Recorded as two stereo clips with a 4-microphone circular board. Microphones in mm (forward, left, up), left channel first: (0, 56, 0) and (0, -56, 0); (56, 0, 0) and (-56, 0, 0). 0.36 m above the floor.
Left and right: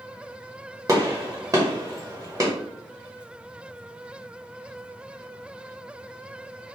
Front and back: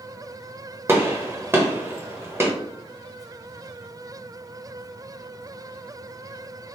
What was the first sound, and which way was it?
A gunshot, 125° right.